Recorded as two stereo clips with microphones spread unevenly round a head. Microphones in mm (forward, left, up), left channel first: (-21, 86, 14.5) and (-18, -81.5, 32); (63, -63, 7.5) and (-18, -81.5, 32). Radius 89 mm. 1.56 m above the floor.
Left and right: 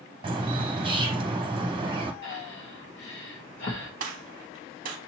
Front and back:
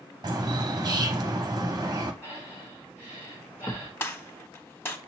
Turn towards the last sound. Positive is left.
turn(degrees=-45)